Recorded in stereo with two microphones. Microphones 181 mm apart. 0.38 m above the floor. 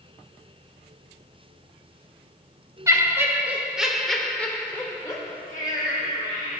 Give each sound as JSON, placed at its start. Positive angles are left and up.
{"t": 2.9, "sound": "laughter", "side_deg": -15, "distance_m": 1.6}